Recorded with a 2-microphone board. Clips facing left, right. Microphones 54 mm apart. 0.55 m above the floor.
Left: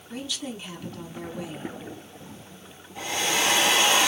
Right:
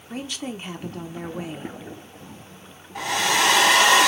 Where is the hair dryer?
85° right, 1.6 m.